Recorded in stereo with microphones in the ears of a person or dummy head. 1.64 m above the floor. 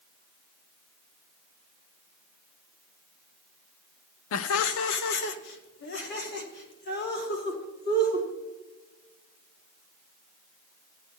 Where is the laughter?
70° left (ahead or behind), 0.5 m; by 8.3 s 50° left (ahead or behind), 3 m.